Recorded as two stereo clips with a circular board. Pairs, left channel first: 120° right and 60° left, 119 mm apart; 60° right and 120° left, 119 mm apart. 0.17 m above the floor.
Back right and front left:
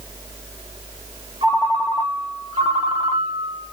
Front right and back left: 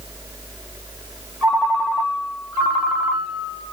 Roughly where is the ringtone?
Ahead left.